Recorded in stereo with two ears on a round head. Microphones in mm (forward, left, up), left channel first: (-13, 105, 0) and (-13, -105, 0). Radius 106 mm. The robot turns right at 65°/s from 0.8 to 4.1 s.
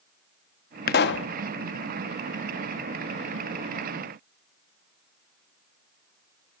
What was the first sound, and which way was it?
A pop, 40° left (ahead or behind).